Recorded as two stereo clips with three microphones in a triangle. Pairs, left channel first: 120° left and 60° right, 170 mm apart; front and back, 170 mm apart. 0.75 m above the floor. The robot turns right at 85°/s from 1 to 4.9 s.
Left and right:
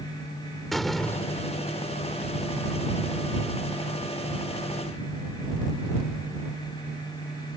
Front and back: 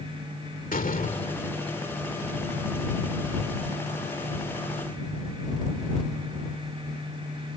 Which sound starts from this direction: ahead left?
A door slam, at 0.7 s.